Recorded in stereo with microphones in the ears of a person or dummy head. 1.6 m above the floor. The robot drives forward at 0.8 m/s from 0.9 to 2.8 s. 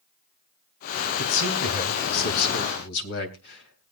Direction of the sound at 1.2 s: 60° left (ahead or behind).